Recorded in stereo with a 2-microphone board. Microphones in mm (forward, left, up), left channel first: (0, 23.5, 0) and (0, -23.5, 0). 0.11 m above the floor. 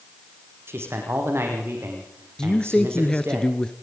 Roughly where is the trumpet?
I don't hear a trumpet.